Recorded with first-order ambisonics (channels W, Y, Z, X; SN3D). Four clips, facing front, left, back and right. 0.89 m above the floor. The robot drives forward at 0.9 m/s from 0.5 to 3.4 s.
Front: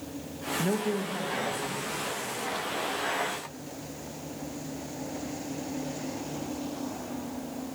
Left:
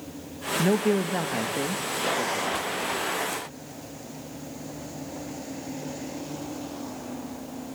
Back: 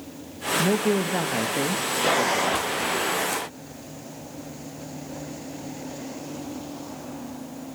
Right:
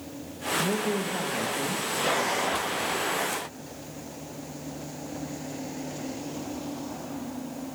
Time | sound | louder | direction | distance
0.6 | a man speaking | left 6 dB, back 7 dB | 120° left | 0.9 m